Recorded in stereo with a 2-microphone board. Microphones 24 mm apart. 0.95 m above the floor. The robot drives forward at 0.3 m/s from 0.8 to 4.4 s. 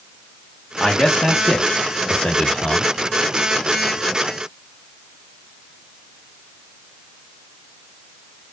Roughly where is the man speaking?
Left.